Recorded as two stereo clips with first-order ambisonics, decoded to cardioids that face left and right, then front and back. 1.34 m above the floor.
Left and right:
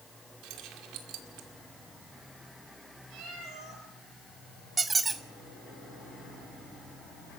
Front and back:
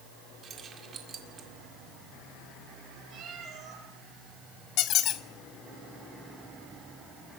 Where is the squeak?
20° right, 0.8 m.